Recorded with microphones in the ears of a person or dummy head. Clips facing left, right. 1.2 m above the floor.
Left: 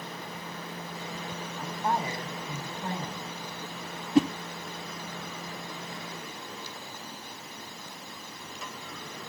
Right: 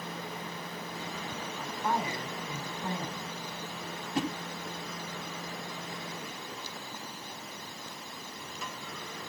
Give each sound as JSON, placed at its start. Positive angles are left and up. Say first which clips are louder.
{"t": 1.6, "sound": "a woman speaking", "louder": "left 2 dB", "side_deg": 25, "distance_m": 4.5}
{"t": 4.2, "sound": "a whoosh", "louder": "left 10 dB", "side_deg": 55, "distance_m": 1.1}